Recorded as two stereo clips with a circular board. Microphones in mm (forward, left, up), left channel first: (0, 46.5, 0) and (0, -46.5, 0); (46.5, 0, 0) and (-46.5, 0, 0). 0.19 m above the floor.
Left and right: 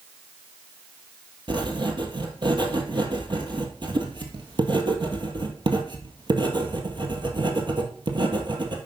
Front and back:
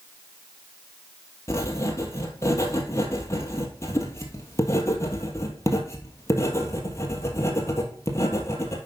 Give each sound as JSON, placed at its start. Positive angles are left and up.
{"t": 1.5, "sound": "writing", "azimuth_deg": -60, "distance_m": 1.6}